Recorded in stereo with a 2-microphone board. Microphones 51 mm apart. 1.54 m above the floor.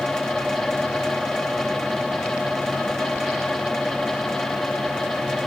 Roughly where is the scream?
I don't hear a scream.